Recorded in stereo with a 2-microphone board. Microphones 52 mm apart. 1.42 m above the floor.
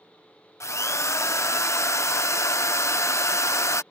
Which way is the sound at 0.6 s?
70° left (ahead or behind).